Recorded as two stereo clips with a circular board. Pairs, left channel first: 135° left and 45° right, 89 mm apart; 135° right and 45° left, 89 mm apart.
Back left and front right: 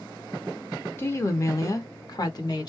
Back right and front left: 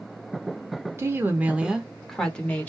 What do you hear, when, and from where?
1.0 s a woman speaking: 85° left, 0.9 m; by 2.7 s 160° left, 1.1 m